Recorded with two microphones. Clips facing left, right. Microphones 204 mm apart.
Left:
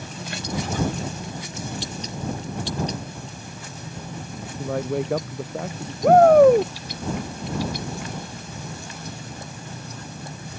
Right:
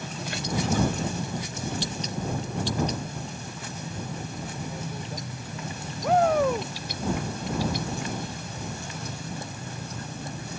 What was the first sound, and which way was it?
A man speaking, 85° left.